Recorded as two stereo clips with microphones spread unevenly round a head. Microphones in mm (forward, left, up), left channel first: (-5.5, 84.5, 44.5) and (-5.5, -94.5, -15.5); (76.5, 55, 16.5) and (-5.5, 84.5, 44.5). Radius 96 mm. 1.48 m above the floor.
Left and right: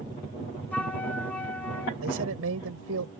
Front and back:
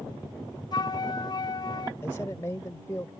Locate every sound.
0.7 s a flute: 20° left
2.0 s a man speaking: 95° right